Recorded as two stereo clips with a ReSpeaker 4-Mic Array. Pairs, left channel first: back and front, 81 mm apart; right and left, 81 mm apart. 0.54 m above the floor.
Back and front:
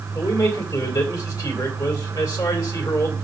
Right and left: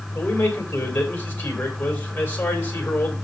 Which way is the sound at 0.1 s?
150° right.